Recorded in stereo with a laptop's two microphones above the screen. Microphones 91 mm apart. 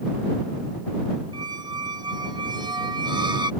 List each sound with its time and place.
1.3 s a squeak: 55° right (ahead or behind)